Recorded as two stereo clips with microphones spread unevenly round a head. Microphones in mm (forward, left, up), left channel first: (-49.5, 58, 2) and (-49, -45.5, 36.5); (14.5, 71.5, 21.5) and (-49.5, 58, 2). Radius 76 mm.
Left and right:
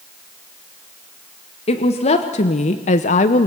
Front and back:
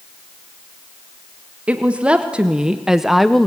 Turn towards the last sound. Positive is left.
turn(degrees=75)